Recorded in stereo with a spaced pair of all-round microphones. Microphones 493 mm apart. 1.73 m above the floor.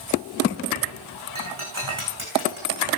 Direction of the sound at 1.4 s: 75° right (ahead or behind).